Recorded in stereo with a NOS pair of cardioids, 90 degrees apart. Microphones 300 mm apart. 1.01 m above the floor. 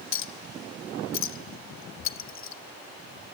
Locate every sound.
0.1 s a clink: 45° left, 0.9 m